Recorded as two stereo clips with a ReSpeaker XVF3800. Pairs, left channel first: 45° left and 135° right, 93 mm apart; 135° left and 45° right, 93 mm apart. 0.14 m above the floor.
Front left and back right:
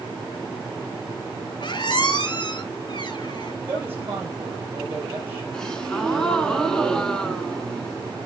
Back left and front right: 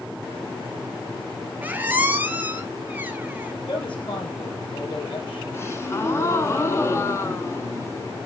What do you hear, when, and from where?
1.6 s a squeak: 20° left, 0.9 m
3.7 s a woman speaking: 160° left, 4 m
5.5 s a gasp: 120° left, 1.2 m